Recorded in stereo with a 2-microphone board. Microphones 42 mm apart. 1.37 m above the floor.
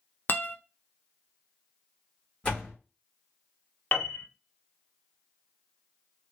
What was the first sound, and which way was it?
A guitar, 55° left (ahead or behind).